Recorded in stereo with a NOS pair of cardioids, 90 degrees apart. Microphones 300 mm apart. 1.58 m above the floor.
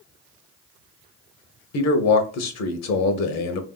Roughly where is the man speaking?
Ahead left.